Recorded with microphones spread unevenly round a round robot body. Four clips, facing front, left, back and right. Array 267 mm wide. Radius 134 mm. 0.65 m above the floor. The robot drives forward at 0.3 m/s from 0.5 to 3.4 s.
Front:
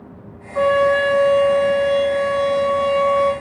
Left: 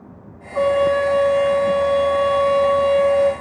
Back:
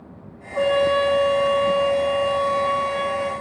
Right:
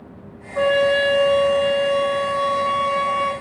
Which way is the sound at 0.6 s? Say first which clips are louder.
Left 1 dB, front 3 dB; 65° left.